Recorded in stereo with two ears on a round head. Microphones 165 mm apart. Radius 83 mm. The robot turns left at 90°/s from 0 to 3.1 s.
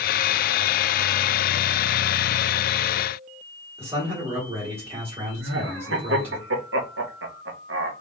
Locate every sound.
3.8 s a man speaking: 15° right (ahead or behind), 2 m
5.4 s laughter: 70° right (ahead or behind), 1.1 m